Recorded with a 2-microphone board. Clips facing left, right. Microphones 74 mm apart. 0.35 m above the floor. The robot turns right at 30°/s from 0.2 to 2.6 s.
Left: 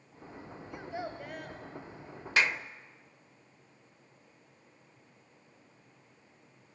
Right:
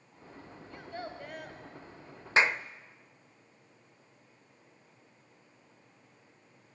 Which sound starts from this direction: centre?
A child speaking, at 0.7 s.